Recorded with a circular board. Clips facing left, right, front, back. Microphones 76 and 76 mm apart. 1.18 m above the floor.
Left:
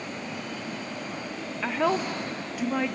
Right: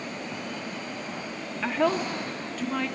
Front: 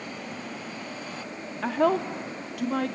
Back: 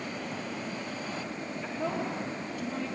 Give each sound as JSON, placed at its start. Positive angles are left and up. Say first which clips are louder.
{"t": 1.6, "sound": "a woman speaking", "louder": "right 1 dB, front 10 dB", "azimuth_deg": 0, "distance_m": 1.1}